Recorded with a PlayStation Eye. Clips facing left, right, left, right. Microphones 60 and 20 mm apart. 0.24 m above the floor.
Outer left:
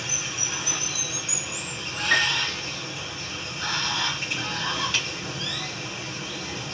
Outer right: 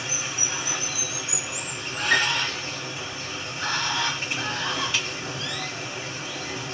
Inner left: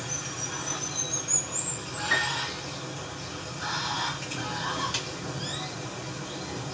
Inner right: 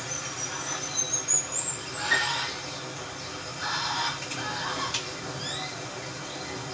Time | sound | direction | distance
0.0 | running water | 25° right (ahead or behind) | 1.7 m
2.1 | a piano | 10° right (ahead or behind) | 1.7 m
4.9 | a snare drum | 10° right (ahead or behind) | 1.8 m